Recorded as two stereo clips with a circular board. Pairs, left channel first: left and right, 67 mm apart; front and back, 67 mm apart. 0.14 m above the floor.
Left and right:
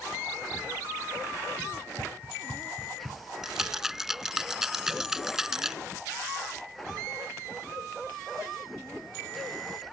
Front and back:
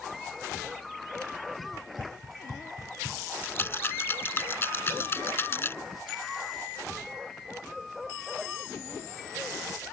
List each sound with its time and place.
1.7 s running footsteps: 150° right; by 3.2 s 155° right
3.4 s a rattle: 10° right